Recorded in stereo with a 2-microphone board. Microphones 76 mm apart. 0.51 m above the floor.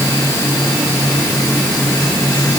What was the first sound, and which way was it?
Only background noise.